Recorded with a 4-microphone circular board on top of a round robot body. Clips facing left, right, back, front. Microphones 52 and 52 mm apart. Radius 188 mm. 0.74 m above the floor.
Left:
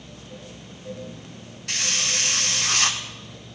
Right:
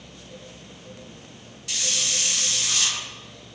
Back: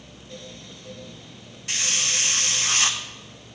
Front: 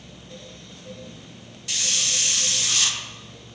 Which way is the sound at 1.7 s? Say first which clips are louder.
Left 3 dB, back 1 dB; 125° left.